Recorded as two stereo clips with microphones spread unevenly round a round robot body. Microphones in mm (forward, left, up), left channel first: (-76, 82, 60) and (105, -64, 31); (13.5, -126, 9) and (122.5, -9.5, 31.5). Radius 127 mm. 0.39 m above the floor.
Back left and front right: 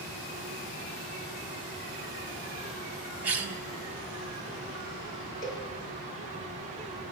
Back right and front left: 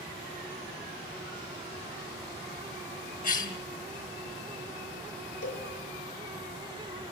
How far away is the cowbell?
About 6.5 m.